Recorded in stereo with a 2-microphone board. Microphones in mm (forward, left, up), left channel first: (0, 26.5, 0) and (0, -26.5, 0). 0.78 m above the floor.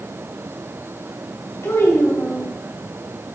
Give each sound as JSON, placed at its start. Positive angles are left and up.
{"t": 1.6, "sound": "a child speaking", "side_deg": 70, "distance_m": 3.0}